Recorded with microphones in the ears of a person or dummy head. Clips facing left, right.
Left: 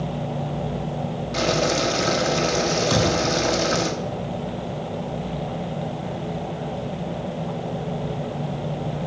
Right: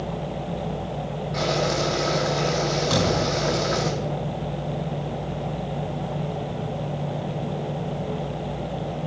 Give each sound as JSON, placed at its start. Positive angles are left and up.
{"t": 1.3, "sound": "boiling", "side_deg": 35, "distance_m": 1.2}
{"t": 2.9, "sound": "a thud", "side_deg": 10, "distance_m": 3.5}